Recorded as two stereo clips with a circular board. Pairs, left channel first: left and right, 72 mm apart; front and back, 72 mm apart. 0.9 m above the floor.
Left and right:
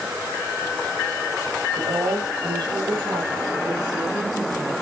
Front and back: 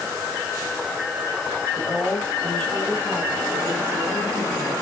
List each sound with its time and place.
1.8 s a woman speaking: 75° right, 6 m